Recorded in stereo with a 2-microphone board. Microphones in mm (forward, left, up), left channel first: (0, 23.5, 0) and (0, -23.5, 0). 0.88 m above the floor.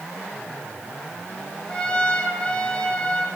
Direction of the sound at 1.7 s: 25° left (ahead or behind).